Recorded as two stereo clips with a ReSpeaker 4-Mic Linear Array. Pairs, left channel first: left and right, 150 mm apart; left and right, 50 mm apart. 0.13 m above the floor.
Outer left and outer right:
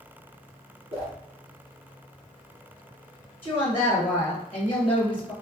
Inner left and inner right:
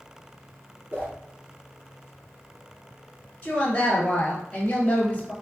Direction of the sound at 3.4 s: 15° left (ahead or behind).